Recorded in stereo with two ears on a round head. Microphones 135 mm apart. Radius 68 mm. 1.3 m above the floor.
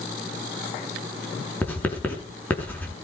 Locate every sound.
1.6 s writing: 15° left (ahead or behind), 6.5 m